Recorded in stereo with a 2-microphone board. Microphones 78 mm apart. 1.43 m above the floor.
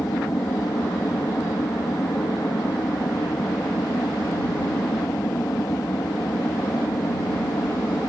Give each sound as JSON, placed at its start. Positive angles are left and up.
{"t": 0.0, "sound": "an aircraft", "side_deg": 45}